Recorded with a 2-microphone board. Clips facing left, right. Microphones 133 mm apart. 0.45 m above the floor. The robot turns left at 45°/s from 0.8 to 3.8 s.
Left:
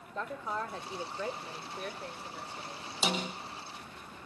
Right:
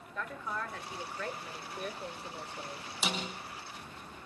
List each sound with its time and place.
0.1 s a woman speaking: 45° left, 1.3 m; by 2.9 s 50° right, 1.3 m
3.0 s a snare drum: 30° left (ahead or behind), 3 m; by 3.3 s 15° left (ahead or behind), 3 m